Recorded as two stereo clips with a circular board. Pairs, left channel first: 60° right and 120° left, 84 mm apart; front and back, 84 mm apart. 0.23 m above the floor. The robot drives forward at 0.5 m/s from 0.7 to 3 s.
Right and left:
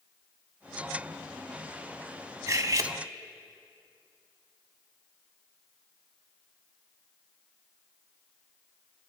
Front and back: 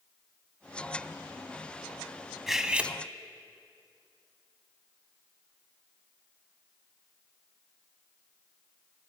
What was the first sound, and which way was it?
Cutlery clinking, 95° left.